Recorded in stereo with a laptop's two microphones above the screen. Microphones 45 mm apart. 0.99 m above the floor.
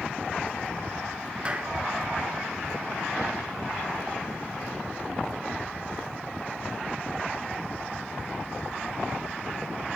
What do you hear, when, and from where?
1.4 s a clap: 30° right (ahead or behind), 1.6 m